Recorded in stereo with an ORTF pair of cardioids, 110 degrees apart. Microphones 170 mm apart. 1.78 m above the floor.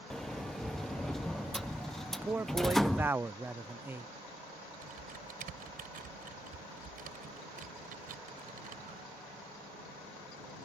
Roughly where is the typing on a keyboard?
Ahead right.